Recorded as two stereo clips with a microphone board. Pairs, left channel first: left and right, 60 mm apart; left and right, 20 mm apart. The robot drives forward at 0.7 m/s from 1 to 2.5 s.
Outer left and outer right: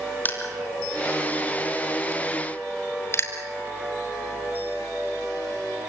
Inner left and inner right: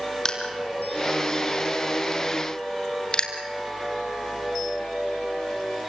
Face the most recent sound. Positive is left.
turn(degrees=45)  # may be behind; listen again after turning